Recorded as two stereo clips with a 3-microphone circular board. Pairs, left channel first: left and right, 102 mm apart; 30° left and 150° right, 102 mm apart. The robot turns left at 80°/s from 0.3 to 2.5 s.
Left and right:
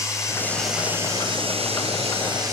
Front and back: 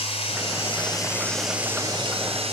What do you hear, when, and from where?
0.0 s running water: 30° left, 6.5 m; by 2.5 s 145° right, 6.5 m